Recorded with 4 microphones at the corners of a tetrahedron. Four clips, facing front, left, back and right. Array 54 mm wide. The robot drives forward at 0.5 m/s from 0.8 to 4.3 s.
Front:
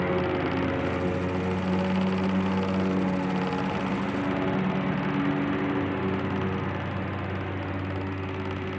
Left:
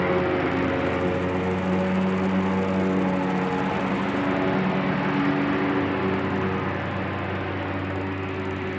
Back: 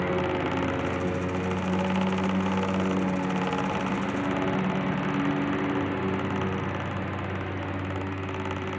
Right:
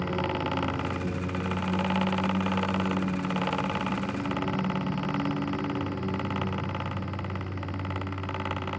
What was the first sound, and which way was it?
A lawn mower, 90° left.